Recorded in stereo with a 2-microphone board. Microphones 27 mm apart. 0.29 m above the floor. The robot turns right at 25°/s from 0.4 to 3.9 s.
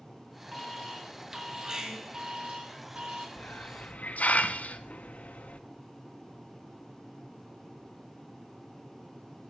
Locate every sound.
0.5 s an alarm: 175° left, 1.9 m; by 3.3 s 115° right, 1.9 m
3.4 s a hiss: 85° left, 0.6 m; by 5.6 s 70° left (ahead or behind), 0.6 m